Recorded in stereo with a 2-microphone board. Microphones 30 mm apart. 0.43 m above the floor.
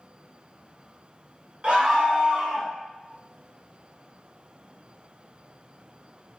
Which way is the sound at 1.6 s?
40° right (ahead or behind).